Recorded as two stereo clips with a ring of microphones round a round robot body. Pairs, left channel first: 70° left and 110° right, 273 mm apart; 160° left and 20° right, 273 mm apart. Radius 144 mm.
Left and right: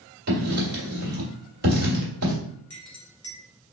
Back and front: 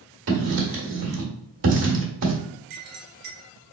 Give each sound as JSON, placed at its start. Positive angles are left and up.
{"t": 0.3, "sound": "writing", "azimuth_deg": -60, "distance_m": 1.8}
{"t": 2.7, "sound": "a clink", "azimuth_deg": -15, "distance_m": 1.6}